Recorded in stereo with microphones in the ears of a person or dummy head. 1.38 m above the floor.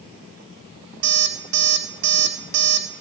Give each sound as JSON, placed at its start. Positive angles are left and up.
{"t": 1.0, "sound": "an alarm clock", "side_deg": -70, "distance_m": 1.9}